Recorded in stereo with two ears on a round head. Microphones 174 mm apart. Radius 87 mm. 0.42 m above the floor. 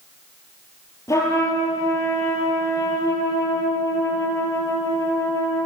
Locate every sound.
1.1 s a trumpet: 15° left (ahead or behind), 7 m